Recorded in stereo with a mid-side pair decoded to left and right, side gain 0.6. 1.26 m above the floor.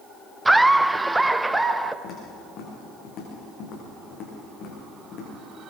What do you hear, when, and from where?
0.5 s laughter: 10° right, 0.5 m
2.0 s footsteps: 55° left, 7.5 m